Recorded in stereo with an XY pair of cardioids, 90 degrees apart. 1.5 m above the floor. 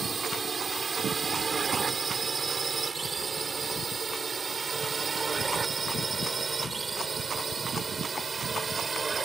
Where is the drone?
35° right; by 9.2 s 30° right.